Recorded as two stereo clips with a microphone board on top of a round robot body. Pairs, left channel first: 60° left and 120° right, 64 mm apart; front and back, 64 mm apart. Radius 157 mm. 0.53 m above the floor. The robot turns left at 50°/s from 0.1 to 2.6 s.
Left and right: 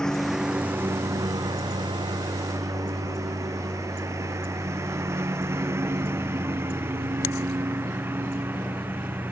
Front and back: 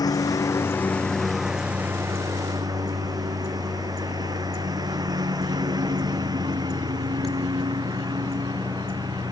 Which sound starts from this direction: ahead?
A lawn mower, at 0.0 s.